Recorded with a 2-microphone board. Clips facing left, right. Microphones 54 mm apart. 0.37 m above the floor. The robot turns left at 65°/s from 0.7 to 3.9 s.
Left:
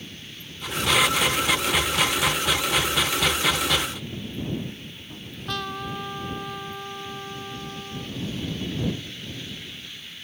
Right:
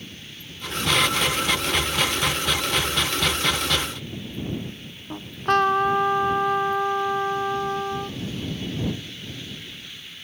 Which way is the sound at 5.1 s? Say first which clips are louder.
Right 12 dB; 50° right (ahead or behind).